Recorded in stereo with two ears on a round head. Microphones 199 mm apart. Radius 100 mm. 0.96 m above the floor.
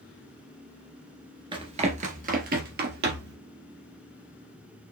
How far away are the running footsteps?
About 0.9 m.